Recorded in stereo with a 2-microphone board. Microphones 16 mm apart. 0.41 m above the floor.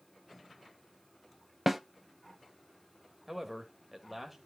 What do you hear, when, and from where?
1.7 s a snare drum: 10° right (ahead or behind), 0.6 m
3.3 s a man speaking: 10° right (ahead or behind), 1.5 m